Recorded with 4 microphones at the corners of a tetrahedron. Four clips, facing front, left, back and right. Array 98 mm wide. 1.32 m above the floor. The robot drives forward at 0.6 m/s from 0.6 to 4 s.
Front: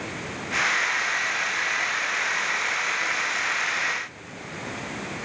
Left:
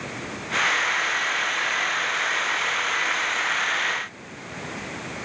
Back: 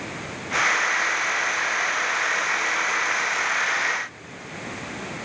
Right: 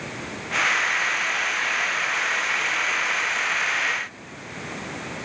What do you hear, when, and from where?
Only background noise.